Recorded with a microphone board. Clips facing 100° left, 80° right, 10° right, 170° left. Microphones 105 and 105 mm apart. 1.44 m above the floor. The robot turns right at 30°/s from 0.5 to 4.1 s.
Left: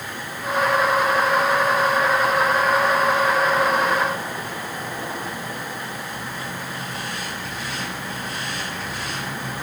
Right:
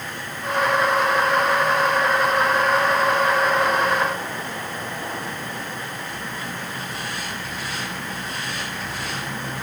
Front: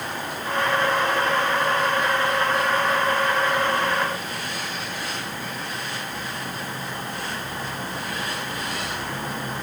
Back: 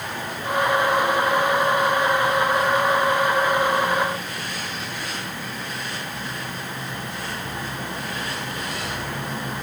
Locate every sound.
Only background noise.